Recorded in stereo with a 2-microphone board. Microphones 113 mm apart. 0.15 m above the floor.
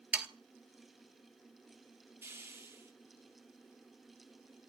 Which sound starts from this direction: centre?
Sawing, at 0.1 s.